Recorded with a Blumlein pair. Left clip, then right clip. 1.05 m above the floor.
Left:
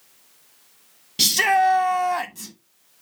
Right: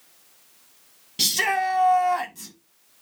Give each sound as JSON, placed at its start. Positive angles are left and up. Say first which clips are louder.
{"t": 1.2, "sound": "a shout", "louder": "left 5 dB", "azimuth_deg": 10, "distance_m": 1.2}